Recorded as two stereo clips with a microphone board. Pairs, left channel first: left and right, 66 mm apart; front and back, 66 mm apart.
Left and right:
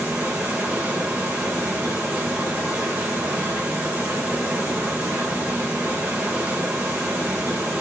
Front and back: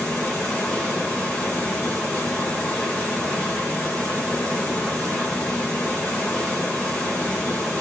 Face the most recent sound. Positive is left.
turn(degrees=-50)